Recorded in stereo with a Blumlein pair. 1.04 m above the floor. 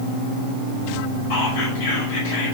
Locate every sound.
1.3 s whispering: 50° left, 4.5 m